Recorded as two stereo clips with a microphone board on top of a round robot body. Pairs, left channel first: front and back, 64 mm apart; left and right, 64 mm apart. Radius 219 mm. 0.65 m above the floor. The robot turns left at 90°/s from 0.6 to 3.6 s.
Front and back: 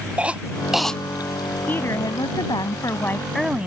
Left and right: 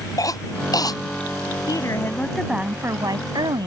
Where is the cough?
110° left; by 1.0 s 75° left.